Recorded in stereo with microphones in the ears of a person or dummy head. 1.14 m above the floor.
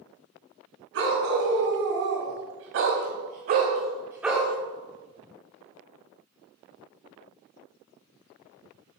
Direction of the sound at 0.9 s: 65° right (ahead or behind).